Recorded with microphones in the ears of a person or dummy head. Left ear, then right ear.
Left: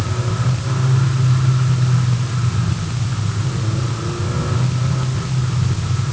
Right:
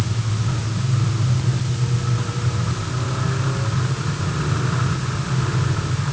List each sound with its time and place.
Only background noise.